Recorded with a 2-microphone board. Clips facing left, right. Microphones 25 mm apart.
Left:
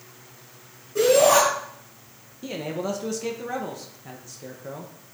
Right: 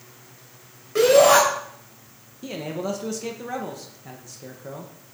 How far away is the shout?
About 3.5 m.